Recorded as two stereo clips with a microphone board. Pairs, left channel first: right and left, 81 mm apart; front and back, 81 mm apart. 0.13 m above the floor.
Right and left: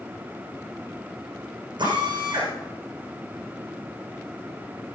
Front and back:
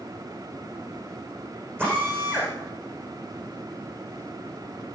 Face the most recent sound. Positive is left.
turn(degrees=115)